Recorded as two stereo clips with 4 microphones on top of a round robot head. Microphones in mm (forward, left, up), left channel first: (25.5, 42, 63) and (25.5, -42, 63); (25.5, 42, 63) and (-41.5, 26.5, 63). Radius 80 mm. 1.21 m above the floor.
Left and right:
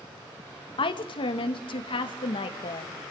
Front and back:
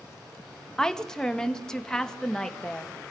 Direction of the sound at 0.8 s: 95° left.